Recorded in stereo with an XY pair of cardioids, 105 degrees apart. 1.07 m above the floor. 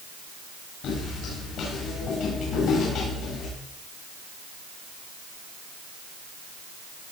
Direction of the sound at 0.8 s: 70° left.